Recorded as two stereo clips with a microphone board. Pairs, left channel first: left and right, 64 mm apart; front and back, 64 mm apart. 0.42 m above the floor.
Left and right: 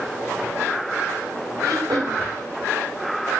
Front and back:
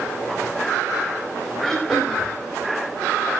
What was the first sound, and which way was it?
Throat clearing, 80° right.